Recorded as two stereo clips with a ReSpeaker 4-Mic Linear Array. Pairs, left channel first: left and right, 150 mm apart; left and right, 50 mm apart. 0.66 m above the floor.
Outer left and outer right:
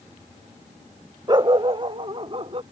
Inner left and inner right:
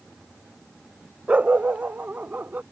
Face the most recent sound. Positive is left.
turn(degrees=-40)  # may be behind; listen again after turning